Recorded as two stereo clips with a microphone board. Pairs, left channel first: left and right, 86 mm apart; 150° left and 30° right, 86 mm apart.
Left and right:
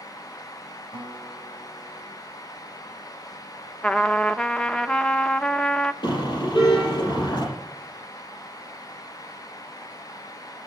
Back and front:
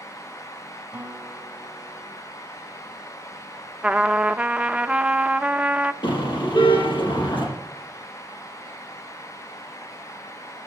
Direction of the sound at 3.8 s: 25° left.